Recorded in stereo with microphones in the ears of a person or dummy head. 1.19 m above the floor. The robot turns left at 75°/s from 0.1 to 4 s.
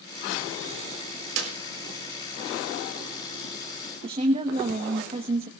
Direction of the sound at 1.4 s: 85° right.